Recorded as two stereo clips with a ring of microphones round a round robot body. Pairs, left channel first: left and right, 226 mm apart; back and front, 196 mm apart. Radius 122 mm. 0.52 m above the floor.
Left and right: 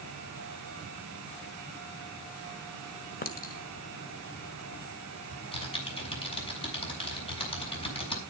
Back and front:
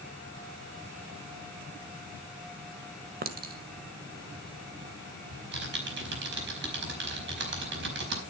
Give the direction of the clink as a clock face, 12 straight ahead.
11 o'clock.